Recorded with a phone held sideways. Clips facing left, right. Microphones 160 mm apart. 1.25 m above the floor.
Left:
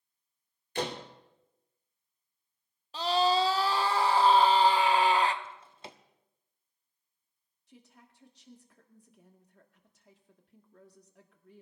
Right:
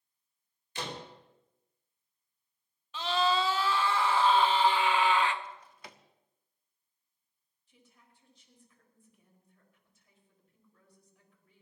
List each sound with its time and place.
0.8 s a door slam: 60° left (ahead or behind), 2.5 m
2.9 s a scream: 35° left (ahead or behind), 1.4 m
5.4 s a drawer: 25° left (ahead or behind), 0.9 m
7.7 s a woman speaking: 75° left (ahead or behind), 2 m